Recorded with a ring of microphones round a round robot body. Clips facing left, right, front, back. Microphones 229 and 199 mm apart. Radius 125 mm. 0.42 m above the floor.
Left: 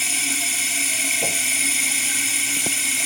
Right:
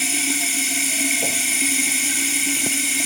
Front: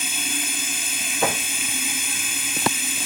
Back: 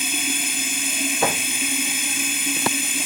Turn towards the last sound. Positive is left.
turn(degrees=-135)